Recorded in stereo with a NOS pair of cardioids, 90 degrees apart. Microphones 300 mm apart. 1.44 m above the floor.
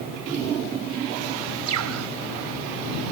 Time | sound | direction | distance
1.7 | a bird | 65° right | ?